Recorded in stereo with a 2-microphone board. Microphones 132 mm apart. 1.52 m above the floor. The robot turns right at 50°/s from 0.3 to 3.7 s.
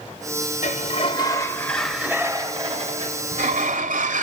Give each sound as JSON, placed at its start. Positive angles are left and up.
{"t": 0.6, "sound": "a sliding door", "azimuth_deg": 120, "distance_m": 0.9}